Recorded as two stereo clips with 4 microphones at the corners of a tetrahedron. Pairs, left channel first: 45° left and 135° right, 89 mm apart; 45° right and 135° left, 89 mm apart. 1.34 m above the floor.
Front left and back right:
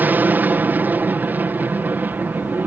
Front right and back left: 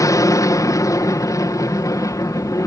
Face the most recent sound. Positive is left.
turn(degrees=-75)